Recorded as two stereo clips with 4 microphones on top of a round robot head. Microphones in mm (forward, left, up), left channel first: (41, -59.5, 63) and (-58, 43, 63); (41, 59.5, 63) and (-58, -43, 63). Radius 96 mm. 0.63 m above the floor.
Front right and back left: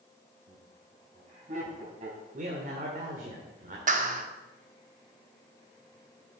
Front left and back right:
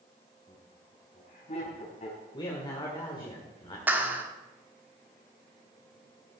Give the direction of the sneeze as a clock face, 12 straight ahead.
No sneeze in this recording.